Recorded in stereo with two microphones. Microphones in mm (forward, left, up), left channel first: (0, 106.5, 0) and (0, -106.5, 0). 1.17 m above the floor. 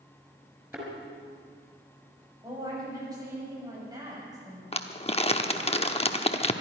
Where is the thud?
10° right (ahead or behind), 5 m.